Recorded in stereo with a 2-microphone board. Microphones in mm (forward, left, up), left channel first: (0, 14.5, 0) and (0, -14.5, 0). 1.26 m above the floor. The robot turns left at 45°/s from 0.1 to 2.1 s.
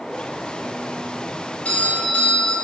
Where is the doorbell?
40° left (ahead or behind), 1.9 m; by 2.5 s 60° left (ahead or behind), 1.9 m.